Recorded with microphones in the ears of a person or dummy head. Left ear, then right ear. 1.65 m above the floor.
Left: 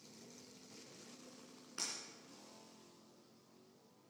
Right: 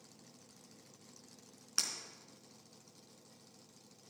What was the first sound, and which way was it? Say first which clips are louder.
Breaking glass: right 7 dB; 40° right (ahead or behind).